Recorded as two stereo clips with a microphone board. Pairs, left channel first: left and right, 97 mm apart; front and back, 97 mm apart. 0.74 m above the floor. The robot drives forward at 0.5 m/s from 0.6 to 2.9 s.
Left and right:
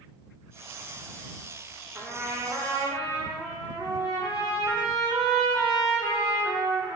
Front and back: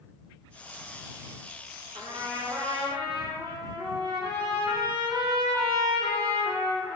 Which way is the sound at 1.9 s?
160° right.